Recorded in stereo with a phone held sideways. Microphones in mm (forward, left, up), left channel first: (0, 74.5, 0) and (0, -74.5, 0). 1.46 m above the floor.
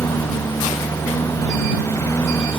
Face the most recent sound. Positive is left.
turn(degrees=20)  # may be behind; listen again after turning